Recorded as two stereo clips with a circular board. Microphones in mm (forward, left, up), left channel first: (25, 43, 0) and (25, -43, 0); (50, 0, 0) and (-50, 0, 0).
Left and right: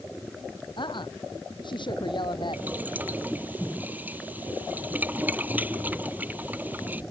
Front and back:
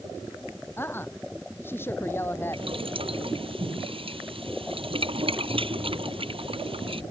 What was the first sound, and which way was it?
A woman speaking, 65° left.